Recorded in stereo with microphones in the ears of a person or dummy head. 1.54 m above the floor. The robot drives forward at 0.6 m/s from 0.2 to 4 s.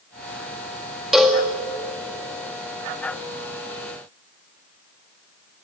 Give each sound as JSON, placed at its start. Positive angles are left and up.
{"t": 1.1, "sound": "a cowbell", "side_deg": 0, "distance_m": 2.0}